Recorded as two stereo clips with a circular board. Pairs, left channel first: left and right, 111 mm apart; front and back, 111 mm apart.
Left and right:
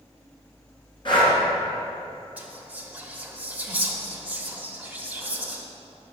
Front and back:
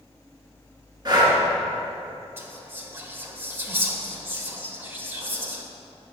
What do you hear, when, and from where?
1.1 s breathing: 130° left, 2.5 m
2.4 s whispering: 145° right, 1.1 m